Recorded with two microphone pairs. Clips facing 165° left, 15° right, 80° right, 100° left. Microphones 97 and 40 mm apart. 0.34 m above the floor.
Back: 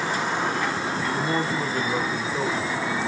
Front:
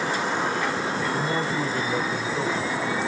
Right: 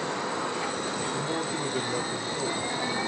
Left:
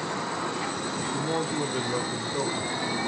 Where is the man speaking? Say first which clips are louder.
Back 1 dB, left 2 dB; 100° left, 3 m; by 3.1 s 95° left, 1.9 m.